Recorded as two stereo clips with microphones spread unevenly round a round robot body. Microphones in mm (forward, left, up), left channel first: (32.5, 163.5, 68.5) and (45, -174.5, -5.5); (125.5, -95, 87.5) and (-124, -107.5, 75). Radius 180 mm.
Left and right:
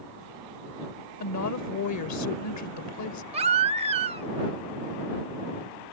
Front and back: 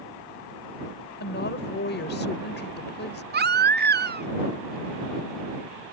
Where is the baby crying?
145° right.